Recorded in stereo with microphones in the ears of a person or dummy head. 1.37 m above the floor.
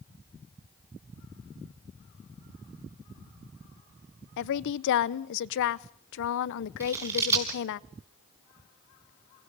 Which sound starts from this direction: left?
A woman speaking, at 4.4 s.